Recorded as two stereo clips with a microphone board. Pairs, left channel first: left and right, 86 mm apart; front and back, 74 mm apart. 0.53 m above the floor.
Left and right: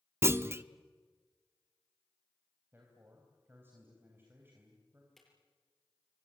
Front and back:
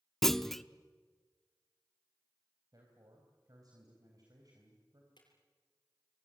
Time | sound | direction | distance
0.2 | a clunk | 80° right | 0.6 m
2.7 | a man speaking | 150° right | 4 m
5.2 | a drawer | 5° left | 6.5 m